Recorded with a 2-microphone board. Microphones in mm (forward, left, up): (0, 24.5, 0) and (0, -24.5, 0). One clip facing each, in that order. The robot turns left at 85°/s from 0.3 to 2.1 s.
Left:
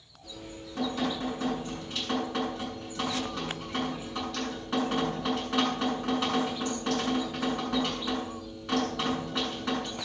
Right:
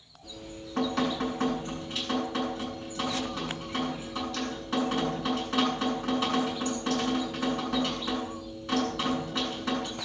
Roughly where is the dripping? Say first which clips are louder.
Right 1 dB; ahead right.